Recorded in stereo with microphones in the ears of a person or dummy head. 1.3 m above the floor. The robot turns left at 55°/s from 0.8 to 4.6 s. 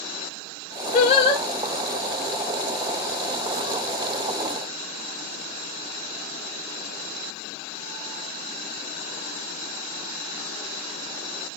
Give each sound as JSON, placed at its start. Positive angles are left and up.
{"t": 0.9, "sound": "singing", "side_deg": 40, "distance_m": 0.9}